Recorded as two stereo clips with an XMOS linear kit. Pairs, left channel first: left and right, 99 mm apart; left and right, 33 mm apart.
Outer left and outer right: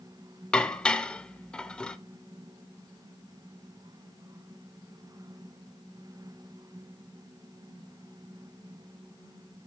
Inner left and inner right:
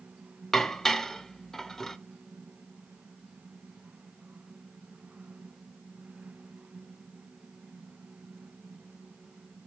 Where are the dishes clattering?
10° left (ahead or behind), 0.5 m.